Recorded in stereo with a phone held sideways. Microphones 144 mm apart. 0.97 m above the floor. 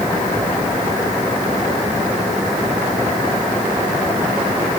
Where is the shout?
I don't hear a shout.